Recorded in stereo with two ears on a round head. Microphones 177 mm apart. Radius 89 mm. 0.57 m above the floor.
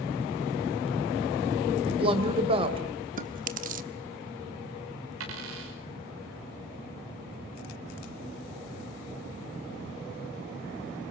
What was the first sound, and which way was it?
A woman speaking, 30° right (ahead or behind).